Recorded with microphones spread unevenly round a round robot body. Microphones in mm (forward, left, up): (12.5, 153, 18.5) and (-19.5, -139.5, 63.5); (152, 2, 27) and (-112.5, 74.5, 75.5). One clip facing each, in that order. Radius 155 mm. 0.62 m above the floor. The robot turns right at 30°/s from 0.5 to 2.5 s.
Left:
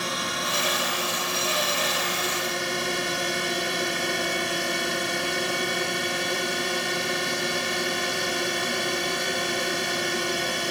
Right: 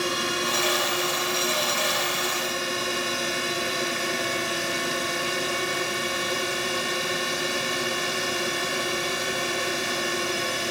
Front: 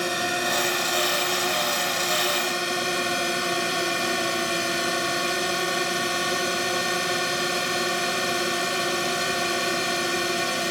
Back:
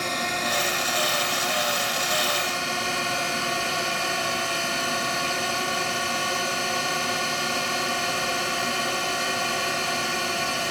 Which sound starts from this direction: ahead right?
A drone, at 0.0 s.